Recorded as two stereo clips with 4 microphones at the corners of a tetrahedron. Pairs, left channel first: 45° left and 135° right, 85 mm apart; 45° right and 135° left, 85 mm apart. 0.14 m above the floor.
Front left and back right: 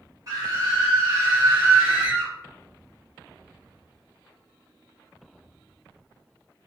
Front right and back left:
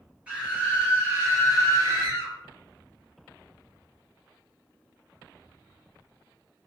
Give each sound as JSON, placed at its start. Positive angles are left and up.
{"t": 0.3, "sound": "a scream", "azimuth_deg": -155, "distance_m": 1.8}